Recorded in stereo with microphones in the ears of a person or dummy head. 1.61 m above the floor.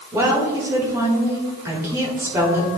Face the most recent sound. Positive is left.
turn(degrees=-20)  # may be behind; listen again after turning